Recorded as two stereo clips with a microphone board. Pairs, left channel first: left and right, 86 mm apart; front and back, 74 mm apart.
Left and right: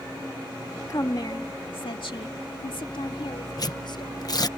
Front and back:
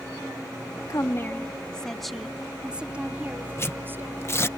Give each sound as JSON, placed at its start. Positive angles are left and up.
{"t": 0.9, "sound": "a woman speaking", "azimuth_deg": 40}
{"t": 3.6, "sound": "tearing paper", "azimuth_deg": 55}